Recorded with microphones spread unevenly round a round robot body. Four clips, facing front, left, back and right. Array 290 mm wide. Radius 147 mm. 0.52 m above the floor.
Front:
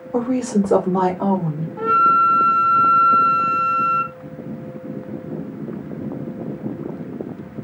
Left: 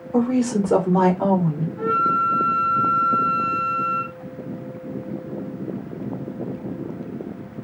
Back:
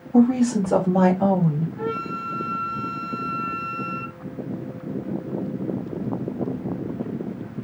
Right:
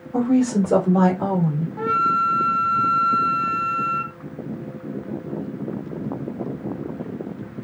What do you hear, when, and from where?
0.1 s a woman speaking: 15° left, 2 m; by 1.7 s 5° left, 1.5 m
1.8 s a flute: 50° right, 0.8 m